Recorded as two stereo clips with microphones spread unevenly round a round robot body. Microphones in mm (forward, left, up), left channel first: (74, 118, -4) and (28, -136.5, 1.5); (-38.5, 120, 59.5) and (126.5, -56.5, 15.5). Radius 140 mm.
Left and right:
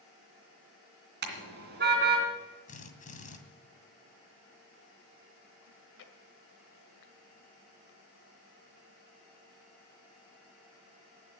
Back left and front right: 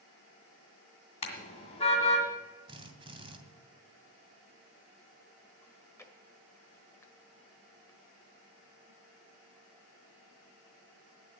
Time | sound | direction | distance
1.2 | a car horn | 155° right | 2.5 m
2.7 | a drill | 20° left | 2.5 m
5.6 | chewing | 50° left | 1.9 m